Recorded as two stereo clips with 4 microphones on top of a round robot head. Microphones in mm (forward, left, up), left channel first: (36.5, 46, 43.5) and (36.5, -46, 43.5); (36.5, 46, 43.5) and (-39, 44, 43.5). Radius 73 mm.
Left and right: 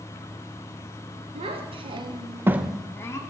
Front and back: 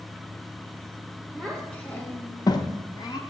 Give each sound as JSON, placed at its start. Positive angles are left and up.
{"t": 1.4, "sound": "a child speaking", "azimuth_deg": -80, "distance_m": 1.2}